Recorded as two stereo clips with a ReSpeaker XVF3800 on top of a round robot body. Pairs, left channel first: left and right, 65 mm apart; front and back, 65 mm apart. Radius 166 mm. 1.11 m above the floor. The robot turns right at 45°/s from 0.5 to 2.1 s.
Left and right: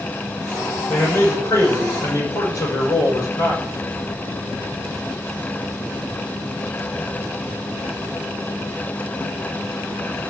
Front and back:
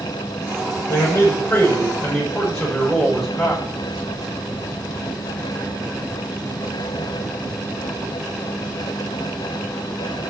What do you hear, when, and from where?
0.9 s a man speaking: 25° left, 6 m; by 3.6 s 80° left, 6 m